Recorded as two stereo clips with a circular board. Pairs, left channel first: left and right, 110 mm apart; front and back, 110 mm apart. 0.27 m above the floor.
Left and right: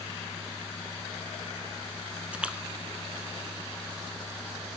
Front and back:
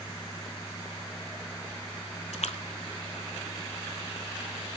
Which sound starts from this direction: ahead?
A splash, at 2.3 s.